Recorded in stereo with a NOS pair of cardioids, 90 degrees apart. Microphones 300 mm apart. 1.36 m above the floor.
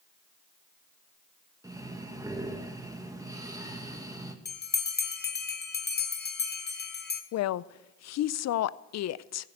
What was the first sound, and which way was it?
Breathing, 10° right.